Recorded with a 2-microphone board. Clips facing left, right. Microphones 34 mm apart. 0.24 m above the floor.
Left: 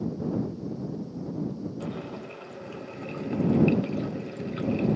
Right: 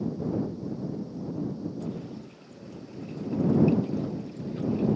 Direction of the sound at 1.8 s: 60° left (ahead or behind).